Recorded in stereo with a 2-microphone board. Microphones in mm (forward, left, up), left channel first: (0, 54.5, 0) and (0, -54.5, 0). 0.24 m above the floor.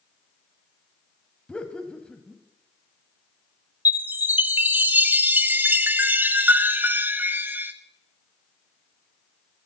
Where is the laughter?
10° left (ahead or behind), 1.1 m.